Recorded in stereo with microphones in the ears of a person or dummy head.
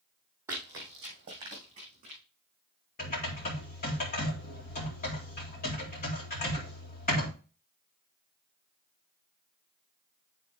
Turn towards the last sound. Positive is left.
turn(degrees=45)  # may be behind; listen again after turning